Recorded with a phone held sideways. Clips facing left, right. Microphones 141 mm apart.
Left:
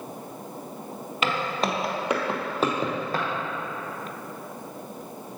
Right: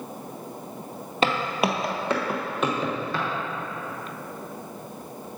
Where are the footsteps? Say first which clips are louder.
Right 3 dB; 35° right (ahead or behind), 1.1 m; by 3.3 s 45° left (ahead or behind), 2 m.